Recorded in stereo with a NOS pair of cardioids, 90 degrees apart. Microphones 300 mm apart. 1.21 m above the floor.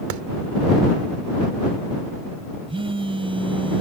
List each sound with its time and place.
0.1 s a clap: 70° right
2.7 s a phone buzzing: 15° right